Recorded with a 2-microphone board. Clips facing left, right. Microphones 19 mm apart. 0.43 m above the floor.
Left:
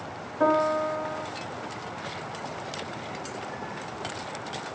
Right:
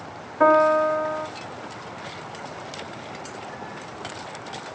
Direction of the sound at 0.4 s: 50° right (ahead or behind).